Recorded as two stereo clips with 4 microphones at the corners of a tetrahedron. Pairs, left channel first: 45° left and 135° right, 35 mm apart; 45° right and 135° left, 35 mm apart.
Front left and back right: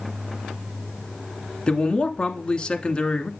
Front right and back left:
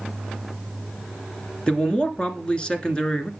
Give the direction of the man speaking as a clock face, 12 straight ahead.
12 o'clock.